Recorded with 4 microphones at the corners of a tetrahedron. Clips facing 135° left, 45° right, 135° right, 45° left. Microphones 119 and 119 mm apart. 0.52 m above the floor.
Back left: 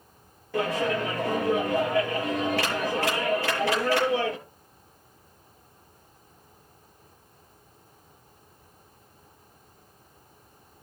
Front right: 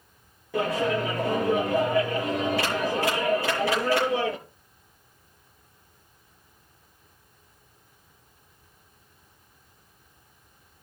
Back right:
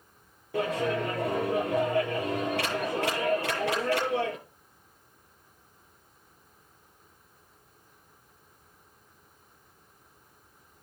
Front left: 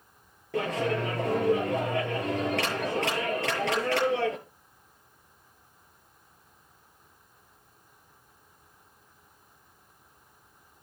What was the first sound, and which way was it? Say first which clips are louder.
A clap: front right 1 dB, even; 30° left.